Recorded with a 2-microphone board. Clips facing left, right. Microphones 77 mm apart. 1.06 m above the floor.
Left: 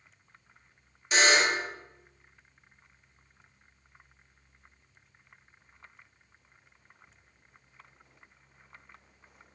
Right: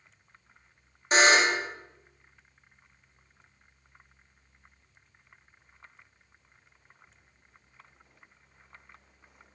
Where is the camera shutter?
I don't hear a camera shutter.